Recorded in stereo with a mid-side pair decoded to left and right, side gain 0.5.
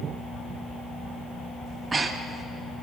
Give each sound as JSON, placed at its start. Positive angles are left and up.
{"t": 1.7, "sound": "breathing", "azimuth_deg": -25, "distance_m": 1.6}